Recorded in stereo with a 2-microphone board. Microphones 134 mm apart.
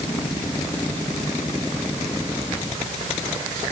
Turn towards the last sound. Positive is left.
No sound to turn to.